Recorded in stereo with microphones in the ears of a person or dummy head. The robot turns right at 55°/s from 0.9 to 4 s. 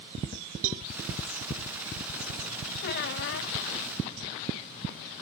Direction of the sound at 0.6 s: 40° right (ahead or behind).